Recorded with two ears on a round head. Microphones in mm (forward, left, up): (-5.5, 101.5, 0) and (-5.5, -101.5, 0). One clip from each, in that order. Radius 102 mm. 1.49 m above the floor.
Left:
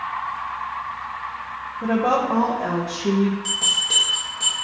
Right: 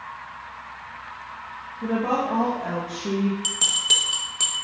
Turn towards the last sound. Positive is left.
turn(degrees=-70)  # may be behind; listen again after turning